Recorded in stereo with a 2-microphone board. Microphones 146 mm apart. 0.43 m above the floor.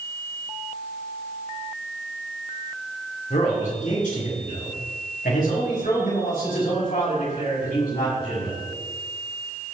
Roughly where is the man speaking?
Left.